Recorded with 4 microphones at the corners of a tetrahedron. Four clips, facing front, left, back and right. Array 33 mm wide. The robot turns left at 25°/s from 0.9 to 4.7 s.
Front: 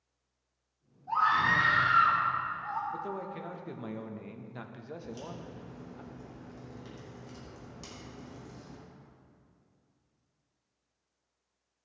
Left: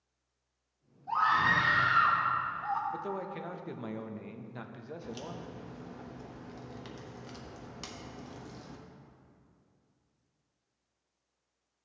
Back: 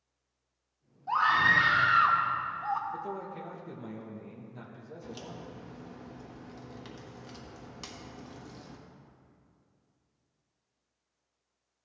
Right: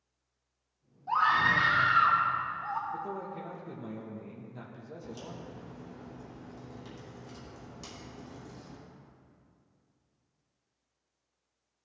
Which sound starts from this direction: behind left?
A crack, at 5.0 s.